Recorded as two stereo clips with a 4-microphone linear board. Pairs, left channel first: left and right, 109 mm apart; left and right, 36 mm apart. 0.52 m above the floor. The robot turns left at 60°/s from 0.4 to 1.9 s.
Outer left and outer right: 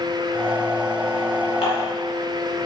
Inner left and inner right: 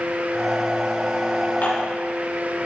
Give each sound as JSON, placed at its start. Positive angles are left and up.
{"t": 1.6, "sound": "dishes clattering", "side_deg": 65, "distance_m": 3.5}